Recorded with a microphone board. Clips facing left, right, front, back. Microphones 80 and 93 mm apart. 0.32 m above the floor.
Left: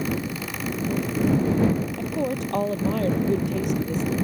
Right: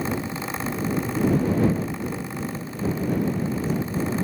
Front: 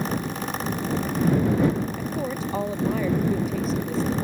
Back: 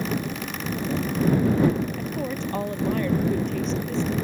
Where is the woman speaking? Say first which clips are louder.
Left 4 dB, front 1 dB; 85° left.